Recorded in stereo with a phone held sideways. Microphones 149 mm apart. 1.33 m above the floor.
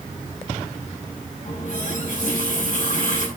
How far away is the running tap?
About 7.5 m.